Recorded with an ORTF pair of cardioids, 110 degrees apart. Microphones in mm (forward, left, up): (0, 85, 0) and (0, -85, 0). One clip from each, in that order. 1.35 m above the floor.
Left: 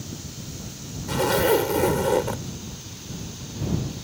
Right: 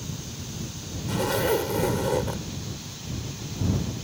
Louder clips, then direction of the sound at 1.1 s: Left 4 dB; 30° left.